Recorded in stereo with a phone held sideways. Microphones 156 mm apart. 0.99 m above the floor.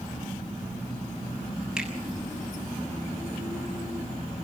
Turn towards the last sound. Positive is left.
turn(degrees=-5)  # may be behind; listen again after turning